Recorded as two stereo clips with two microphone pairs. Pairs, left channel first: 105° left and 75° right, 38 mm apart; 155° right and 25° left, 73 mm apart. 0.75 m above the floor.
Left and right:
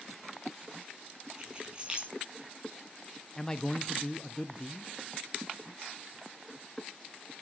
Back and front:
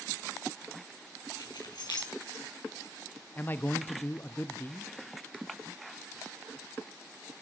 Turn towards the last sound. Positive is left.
turn(degrees=165)